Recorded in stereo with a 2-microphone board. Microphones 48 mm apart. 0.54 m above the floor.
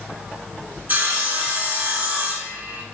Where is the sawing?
40° right (ahead or behind), 1.6 m.